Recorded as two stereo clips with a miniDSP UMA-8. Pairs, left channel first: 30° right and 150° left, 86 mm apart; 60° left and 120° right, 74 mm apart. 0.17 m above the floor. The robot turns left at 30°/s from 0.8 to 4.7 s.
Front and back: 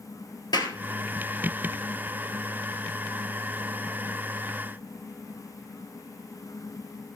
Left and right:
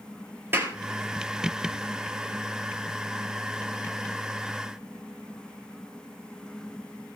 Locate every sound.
0.5 s a clap: 60° right, 3 m